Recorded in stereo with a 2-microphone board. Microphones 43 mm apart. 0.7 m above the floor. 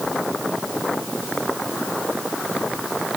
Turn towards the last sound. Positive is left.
No sound to turn to.